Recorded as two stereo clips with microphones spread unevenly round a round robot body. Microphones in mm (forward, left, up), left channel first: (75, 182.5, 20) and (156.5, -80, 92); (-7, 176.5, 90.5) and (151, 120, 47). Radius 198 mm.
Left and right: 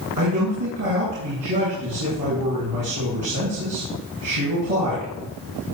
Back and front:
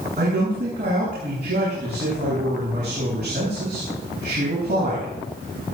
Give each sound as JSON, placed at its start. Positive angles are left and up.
{"t": 0.2, "sound": "a man speaking", "azimuth_deg": -80, "distance_m": 8.5}